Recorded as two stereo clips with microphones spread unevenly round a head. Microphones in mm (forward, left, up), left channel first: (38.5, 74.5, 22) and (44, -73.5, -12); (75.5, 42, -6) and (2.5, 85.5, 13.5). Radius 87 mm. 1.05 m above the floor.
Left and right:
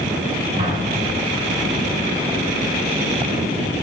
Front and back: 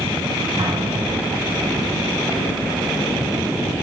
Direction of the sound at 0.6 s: 150° right.